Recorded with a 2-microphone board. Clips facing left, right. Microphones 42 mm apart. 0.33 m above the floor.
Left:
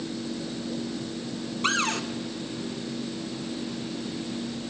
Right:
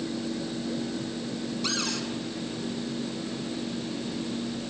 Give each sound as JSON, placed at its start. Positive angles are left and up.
{"t": 1.6, "sound": "a cupboard door", "side_deg": 40, "distance_m": 1.6}